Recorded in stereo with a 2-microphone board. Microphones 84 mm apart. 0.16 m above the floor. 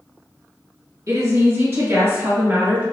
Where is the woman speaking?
40° right (ahead or behind), 1.9 m; by 2.8 s 25° right (ahead or behind), 2.5 m.